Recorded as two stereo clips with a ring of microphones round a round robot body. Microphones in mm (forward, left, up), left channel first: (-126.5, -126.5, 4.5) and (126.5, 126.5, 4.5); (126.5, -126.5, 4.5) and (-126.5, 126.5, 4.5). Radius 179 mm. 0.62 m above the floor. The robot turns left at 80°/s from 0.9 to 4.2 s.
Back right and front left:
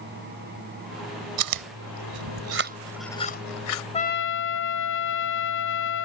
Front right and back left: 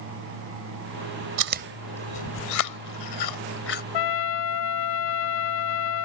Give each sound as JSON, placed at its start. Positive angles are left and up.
{"t": 1.4, "sound": "chewing", "azimuth_deg": 85}
{"t": 3.9, "sound": "a trumpet", "azimuth_deg": -60}